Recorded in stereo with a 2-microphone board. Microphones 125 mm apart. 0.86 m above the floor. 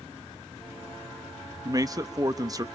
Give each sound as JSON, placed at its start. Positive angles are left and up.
{"t": 1.6, "sound": "a man speaking", "side_deg": -30, "distance_m": 0.7}